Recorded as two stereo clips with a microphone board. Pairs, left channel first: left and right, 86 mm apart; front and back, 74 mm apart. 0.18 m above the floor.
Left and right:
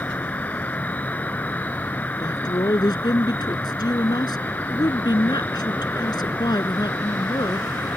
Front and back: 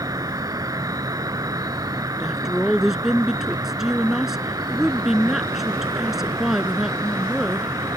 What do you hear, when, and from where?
0.0 s an insect: 155° left
2.2 s a woman speaking: 95° left